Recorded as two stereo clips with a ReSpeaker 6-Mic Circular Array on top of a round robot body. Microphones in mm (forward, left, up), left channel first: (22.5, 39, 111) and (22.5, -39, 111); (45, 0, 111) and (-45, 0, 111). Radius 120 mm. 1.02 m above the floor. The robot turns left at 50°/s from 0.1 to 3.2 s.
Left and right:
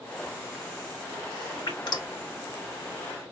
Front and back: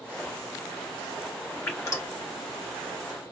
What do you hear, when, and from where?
1.7 s dripping: 70° left, 1.7 m; by 2.1 s 45° left, 1.7 m